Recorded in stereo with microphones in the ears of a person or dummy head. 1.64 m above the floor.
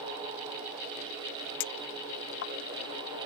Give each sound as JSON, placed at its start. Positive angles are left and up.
{"t": 1.6, "sound": "a clink", "side_deg": 55}